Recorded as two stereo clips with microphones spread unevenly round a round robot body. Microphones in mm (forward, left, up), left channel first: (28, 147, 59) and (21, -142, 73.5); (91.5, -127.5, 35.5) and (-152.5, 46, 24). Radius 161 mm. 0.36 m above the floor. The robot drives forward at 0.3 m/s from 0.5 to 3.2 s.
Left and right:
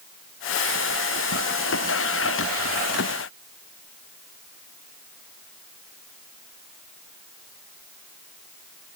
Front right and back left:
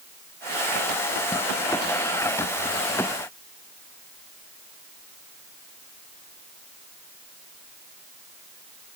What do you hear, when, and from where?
Only background noise.